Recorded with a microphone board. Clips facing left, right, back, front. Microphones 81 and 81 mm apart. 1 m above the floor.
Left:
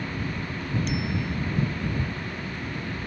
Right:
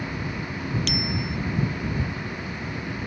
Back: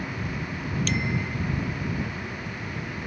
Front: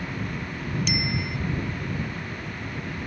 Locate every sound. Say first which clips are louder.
0.9 s a bicycle bell: even, back 1 dB; 80° right